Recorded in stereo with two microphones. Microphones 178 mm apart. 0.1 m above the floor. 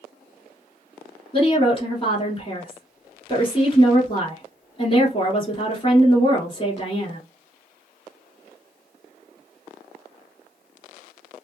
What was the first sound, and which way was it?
A woman speaking, 30° left (ahead or behind).